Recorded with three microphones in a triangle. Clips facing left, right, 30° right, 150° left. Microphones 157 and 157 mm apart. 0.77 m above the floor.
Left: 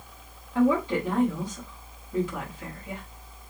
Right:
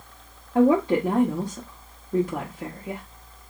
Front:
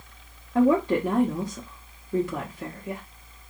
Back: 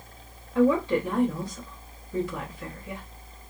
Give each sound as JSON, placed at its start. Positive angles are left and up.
{"t": 0.6, "sound": "a woman speaking", "azimuth_deg": -55, "distance_m": 1.1}